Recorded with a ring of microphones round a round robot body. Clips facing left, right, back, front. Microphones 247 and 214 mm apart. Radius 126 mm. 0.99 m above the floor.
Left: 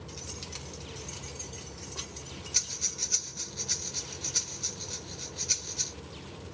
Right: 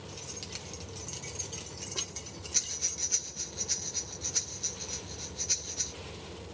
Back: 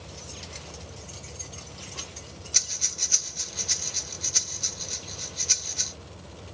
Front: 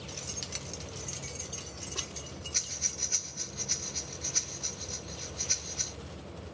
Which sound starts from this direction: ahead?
Keys jangling, at 0.1 s.